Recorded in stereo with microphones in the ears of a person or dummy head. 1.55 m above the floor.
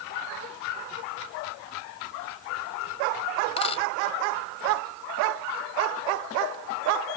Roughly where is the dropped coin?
Left.